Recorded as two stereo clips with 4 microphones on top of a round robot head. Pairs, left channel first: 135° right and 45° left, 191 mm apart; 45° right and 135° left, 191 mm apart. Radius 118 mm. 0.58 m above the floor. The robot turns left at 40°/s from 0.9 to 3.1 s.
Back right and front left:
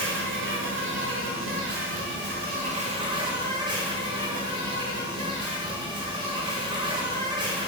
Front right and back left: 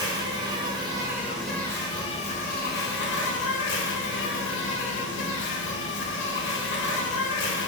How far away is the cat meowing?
I don't hear a cat meowing.